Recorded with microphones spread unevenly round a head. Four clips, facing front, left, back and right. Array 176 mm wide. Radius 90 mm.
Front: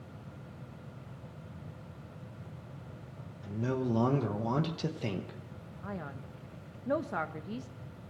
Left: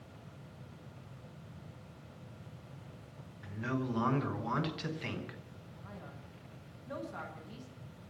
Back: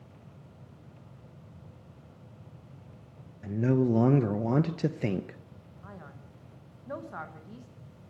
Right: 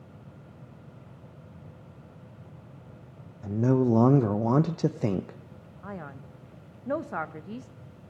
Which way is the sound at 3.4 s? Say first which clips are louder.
Right 13 dB, back 7 dB; 110° right.